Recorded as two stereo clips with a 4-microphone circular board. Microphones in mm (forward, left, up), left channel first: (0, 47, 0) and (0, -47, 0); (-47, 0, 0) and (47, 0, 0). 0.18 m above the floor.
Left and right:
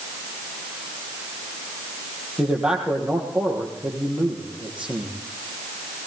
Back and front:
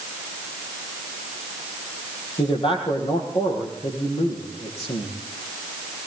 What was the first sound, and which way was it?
A man speaking, 175° right.